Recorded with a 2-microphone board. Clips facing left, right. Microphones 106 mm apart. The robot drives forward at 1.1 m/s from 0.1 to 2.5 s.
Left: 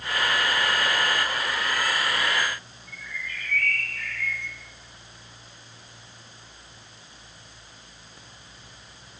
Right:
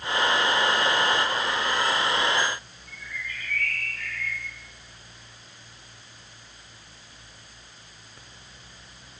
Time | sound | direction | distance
2.9 | a bird | 45° left (ahead or behind) | 7 m